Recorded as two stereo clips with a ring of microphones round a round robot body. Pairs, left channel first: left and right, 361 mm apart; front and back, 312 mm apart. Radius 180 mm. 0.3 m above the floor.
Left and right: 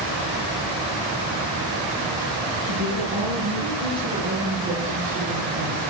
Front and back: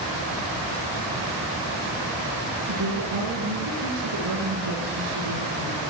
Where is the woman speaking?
140° right, 6 m.